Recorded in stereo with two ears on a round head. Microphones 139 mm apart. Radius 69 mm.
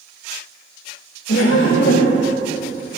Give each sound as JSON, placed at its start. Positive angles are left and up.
{"t": 1.3, "sound": "laughter", "side_deg": 80, "distance_m": 3.0}